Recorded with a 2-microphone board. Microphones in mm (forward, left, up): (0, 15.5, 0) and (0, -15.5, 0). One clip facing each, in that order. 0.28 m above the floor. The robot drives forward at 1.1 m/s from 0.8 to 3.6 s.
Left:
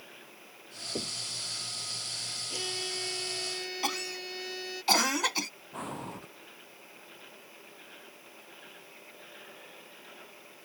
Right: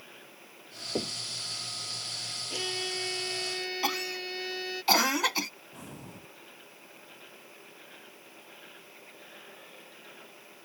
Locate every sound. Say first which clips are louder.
0.9 s knocking: right 4 dB; 30° right (ahead or behind)
2.5 s a violin: right 3 dB; 15° right (ahead or behind); by 4.8 s 20° right (ahead or behind)
3.8 s a cough: right 1 dB; 10° right (ahead or behind)
5.7 s breathing: left 7 dB; 55° left (ahead or behind)